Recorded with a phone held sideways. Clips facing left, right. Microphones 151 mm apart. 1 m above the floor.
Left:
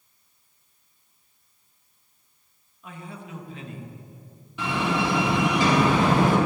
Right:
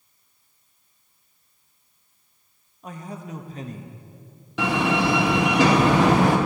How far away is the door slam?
About 1.8 m.